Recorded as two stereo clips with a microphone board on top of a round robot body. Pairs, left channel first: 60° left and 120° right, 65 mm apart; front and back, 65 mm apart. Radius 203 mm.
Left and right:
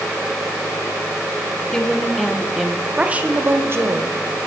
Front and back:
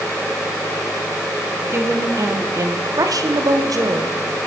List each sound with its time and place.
1.6 s a woman speaking: 135° left, 1.9 m; by 4.5 s 145° right, 1.5 m